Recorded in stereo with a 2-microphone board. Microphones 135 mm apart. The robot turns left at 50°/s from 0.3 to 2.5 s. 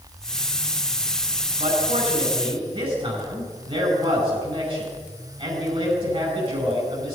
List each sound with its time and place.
1.6 s a man speaking: 80° right, 5.5 m; by 7.2 s 125° right, 5.5 m